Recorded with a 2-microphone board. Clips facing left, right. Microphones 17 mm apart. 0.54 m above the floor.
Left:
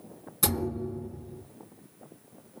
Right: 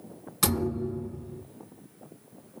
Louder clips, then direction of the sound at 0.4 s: Right 2 dB; 40° right (ahead or behind).